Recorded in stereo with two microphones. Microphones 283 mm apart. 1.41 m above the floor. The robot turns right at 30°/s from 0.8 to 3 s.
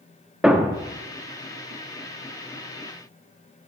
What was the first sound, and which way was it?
A thud, 5° right (ahead or behind).